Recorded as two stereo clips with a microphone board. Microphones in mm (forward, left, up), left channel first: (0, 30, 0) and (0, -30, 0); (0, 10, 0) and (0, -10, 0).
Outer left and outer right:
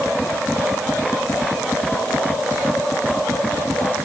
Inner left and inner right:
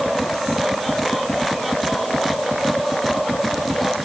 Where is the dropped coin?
No dropped coin in this recording.